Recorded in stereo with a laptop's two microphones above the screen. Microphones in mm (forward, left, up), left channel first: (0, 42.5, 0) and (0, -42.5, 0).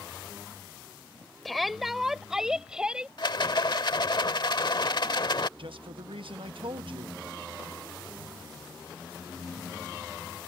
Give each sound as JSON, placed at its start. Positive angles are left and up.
{"t": 1.4, "sound": "a shout", "side_deg": 0}
{"t": 3.2, "sound": "a rattle", "side_deg": 60}
{"t": 5.6, "sound": "a man speaking", "side_deg": -75}